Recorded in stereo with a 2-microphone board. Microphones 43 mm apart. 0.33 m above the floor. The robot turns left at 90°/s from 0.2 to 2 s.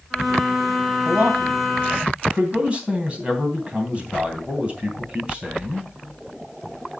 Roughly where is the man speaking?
Ahead right.